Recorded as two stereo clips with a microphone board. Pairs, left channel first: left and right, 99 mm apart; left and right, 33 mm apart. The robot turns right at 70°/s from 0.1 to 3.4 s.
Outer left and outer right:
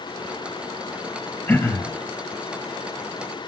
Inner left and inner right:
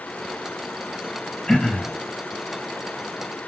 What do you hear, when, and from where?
1.5 s throat clearing: 20° left, 4 m; by 1.9 s 55° left, 4 m